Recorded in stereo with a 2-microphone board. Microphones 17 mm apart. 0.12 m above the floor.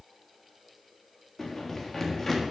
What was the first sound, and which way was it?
Running footsteps, 20° left (ahead or behind).